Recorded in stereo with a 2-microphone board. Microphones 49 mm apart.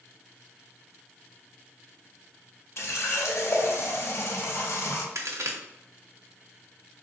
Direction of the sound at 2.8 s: 60° left (ahead or behind).